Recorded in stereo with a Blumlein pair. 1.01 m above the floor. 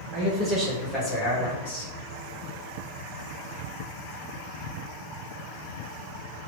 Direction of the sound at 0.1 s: 20° right.